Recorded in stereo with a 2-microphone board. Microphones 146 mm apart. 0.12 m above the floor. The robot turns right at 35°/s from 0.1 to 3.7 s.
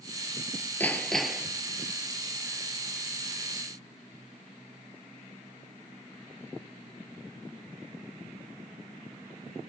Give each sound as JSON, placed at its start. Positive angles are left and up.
{"t": 0.8, "sound": "hammering", "side_deg": 15, "distance_m": 1.4}